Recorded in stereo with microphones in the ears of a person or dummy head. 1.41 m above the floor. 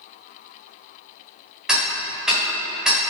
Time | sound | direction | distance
1.7 | ticking | 5° right (ahead or behind) | 1.4 m